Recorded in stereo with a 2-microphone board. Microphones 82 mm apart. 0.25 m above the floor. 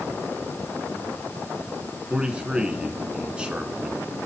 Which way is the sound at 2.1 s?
15° right (ahead or behind).